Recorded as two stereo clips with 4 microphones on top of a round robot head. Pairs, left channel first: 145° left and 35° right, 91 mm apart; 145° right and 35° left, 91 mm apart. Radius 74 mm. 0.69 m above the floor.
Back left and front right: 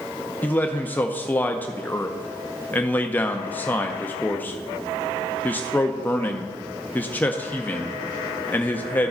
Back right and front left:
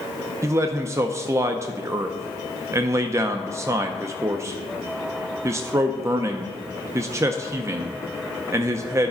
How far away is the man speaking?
About 0.6 m.